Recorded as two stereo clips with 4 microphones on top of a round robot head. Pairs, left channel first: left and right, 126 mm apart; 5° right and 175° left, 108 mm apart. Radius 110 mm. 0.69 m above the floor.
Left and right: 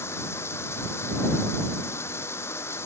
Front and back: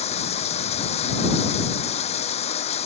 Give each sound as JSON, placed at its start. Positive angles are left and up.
{"t": 0.0, "sound": "running water", "azimuth_deg": 15}